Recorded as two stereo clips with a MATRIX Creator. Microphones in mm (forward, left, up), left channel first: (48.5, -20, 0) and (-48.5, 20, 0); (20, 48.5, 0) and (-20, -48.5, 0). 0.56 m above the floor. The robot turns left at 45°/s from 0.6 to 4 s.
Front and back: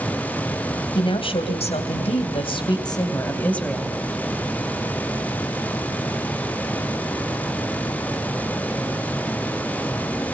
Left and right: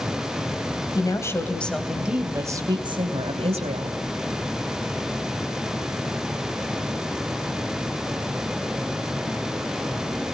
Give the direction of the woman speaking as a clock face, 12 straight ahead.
11 o'clock.